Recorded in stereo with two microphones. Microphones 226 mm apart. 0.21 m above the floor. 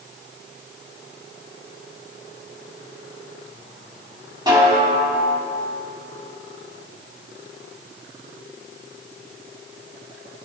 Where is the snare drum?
20° right (ahead or behind), 1.8 m.